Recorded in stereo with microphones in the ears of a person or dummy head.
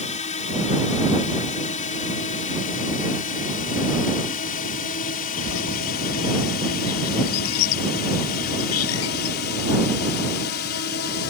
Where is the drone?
35° left (ahead or behind); by 11.3 s 50° left (ahead or behind).